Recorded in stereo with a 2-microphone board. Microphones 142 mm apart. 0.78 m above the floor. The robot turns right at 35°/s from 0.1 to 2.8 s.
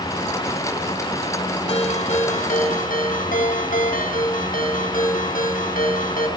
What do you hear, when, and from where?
1.7 s a ringtone: 45° left, 3 m; by 6.3 s 85° left, 3 m